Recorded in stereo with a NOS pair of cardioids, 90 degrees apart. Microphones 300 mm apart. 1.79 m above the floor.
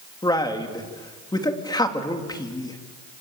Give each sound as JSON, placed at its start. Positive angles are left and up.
{"t": 0.2, "sound": "a man speaking", "azimuth_deg": 15, "distance_m": 4.0}